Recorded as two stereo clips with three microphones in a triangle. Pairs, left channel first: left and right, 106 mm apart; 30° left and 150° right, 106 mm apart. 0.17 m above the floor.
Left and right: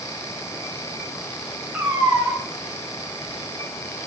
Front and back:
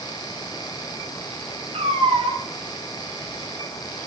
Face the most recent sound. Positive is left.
turn(degrees=-160)